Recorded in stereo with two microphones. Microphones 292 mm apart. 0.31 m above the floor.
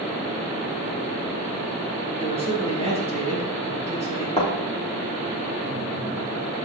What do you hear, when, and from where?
2.2 s a man speaking: 20° right (ahead or behind), 4 m
4.4 s a thud: 20° left (ahead or behind), 3.5 m